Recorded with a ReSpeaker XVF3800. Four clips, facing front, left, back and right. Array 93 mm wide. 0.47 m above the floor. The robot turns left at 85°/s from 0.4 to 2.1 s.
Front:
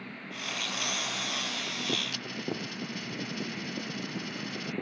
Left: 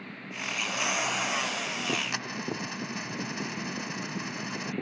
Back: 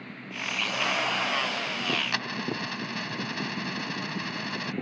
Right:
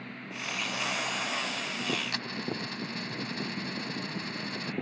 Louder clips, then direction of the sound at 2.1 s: Left 1 dB, back 5 dB; 160° left.